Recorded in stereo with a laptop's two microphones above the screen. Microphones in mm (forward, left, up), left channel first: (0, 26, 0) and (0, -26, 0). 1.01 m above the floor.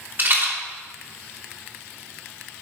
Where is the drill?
No drill in this recording.